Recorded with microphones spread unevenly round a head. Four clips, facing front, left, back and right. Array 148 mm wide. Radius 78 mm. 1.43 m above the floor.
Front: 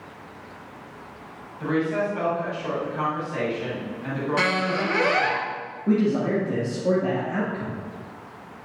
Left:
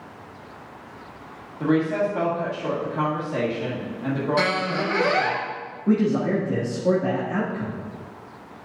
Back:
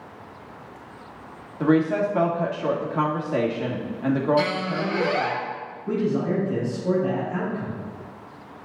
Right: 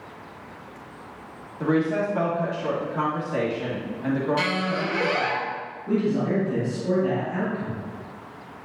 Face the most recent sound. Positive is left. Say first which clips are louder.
# left 3 dB, front 2 dB
turn(degrees=50)